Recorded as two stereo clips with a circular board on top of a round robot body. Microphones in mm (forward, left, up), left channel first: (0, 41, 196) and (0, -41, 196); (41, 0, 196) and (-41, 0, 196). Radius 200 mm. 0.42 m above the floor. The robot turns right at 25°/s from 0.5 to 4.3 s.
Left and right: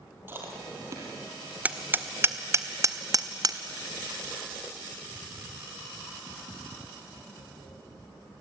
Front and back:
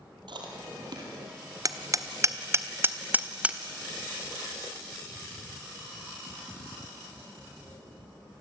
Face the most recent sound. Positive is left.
turn(degrees=-90)